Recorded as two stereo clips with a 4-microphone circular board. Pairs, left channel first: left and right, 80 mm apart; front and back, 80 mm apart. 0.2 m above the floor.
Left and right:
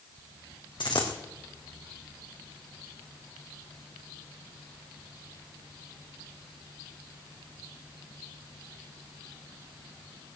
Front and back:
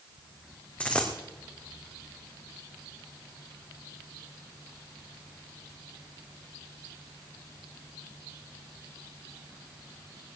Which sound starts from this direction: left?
A dropped coin, at 0.8 s.